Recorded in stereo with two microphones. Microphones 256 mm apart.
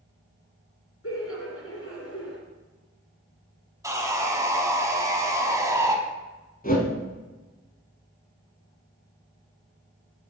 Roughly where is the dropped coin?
I don't hear a dropped coin.